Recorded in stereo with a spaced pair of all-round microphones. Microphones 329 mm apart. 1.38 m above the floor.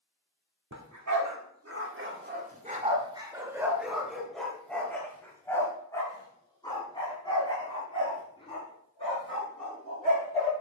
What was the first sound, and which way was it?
A dog barking, 60° right (ahead or behind).